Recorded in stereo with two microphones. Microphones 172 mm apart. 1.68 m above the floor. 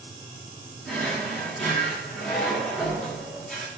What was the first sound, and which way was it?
A drawer, centre (ahead or behind).